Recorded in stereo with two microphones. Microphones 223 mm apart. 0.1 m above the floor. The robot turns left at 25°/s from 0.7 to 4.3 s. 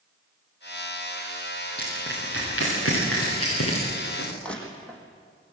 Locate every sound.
1.8 s crushing: 50° left (ahead or behind), 10 m; by 4.3 s 70° left (ahead or behind), 10 m
4.4 s crushing: 5° left (ahead or behind), 5 m